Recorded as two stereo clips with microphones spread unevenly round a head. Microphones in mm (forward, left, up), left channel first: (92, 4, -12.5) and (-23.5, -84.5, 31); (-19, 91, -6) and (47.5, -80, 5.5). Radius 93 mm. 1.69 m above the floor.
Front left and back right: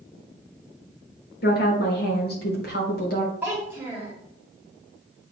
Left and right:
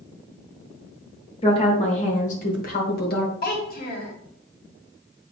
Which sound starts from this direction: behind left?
A child speaking, at 3.4 s.